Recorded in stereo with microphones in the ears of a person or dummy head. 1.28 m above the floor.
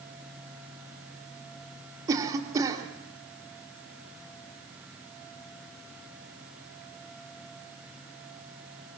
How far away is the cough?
About 3.5 m.